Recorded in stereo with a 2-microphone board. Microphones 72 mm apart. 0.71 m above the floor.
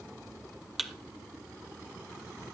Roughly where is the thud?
Centre.